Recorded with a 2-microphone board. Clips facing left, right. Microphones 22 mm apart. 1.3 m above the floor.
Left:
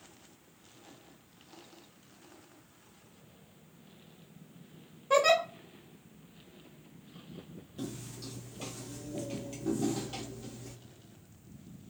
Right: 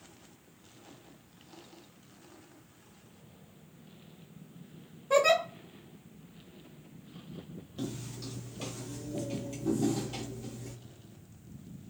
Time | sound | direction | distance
5.1 | a giggle | 25° left (ahead or behind) | 1.0 m
7.8 | footsteps | 25° right (ahead or behind) | 1.4 m